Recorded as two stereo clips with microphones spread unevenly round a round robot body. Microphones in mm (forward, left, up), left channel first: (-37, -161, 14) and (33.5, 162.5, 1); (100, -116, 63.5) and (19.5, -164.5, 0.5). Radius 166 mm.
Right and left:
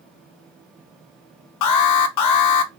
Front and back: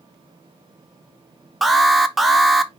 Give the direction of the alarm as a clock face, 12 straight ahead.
3 o'clock.